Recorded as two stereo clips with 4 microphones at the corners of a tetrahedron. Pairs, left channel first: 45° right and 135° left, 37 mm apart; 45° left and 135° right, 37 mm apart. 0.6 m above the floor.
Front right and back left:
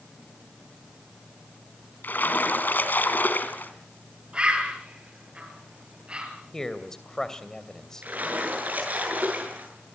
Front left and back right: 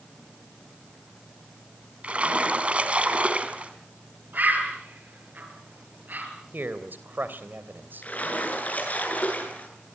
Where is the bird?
165° right, 5.5 m.